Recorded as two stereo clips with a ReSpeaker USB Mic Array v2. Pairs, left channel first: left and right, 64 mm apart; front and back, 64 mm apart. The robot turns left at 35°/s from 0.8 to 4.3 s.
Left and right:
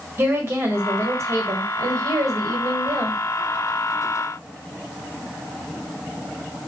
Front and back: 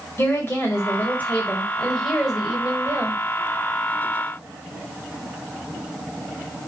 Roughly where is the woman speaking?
Ahead right.